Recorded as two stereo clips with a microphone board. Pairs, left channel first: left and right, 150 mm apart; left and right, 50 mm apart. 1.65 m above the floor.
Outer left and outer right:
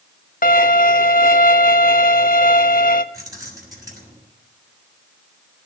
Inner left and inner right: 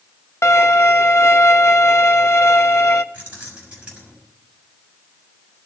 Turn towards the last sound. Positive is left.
turn(degrees=-25)  # may be behind; listen again after turning